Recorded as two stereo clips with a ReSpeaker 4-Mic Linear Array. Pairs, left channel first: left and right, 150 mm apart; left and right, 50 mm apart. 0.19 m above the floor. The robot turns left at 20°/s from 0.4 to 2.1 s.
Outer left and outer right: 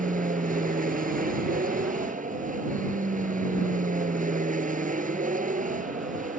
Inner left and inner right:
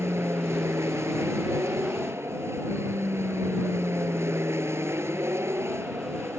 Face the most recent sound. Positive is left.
turn(degrees=-105)